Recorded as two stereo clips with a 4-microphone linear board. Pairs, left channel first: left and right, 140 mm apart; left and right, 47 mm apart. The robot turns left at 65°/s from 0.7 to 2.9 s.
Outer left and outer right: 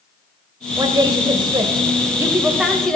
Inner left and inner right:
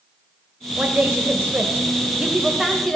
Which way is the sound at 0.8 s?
50° right.